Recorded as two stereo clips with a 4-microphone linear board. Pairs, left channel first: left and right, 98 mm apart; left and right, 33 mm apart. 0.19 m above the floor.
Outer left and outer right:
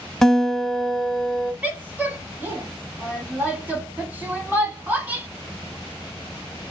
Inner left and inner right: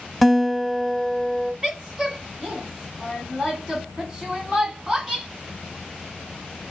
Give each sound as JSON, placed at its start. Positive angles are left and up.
{"t": 0.2, "sound": "a guitar", "side_deg": 0, "distance_m": 0.7}
{"t": 1.6, "sound": "a woman speaking", "side_deg": -20, "distance_m": 1.3}